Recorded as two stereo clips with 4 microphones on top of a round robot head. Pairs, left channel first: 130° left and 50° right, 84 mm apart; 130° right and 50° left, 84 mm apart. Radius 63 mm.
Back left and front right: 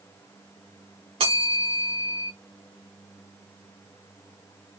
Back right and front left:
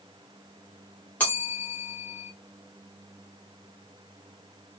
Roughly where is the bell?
Ahead right.